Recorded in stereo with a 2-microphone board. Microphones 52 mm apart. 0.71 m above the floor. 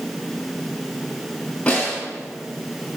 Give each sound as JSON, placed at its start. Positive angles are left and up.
{"t": 1.7, "sound": "a snare drum", "side_deg": 25, "distance_m": 3.0}